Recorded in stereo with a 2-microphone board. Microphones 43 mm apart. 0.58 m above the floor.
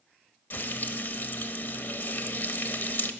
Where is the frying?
50° left (ahead or behind), 0.7 m.